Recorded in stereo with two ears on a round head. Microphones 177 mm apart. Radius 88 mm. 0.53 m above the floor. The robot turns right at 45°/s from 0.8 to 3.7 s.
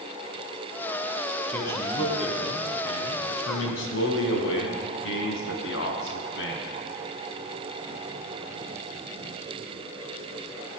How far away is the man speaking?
About 3.5 m.